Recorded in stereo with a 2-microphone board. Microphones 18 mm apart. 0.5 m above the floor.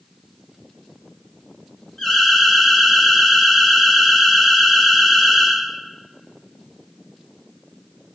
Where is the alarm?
40° left (ahead or behind), 2 m.